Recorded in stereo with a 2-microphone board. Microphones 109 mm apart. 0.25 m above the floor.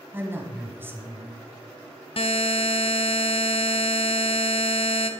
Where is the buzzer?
60° left (ahead or behind), 0.6 m.